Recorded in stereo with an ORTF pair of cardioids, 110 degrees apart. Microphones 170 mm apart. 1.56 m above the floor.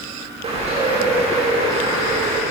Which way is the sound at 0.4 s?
35° right.